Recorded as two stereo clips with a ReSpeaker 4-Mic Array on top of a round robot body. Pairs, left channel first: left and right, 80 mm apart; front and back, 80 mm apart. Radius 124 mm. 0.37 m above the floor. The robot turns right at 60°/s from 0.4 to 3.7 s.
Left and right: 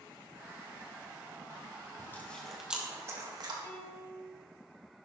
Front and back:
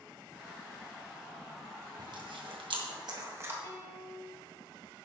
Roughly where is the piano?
Ahead left.